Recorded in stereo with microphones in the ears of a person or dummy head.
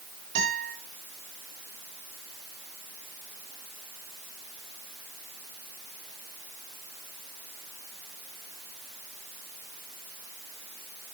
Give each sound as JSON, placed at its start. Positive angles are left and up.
{"t": 0.3, "sound": "a guitar", "side_deg": -40, "distance_m": 4.5}